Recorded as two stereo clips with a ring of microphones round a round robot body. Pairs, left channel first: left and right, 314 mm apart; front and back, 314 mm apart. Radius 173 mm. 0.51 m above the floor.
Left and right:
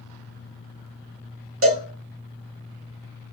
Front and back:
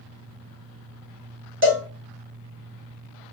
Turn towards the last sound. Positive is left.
turn(degrees=-130)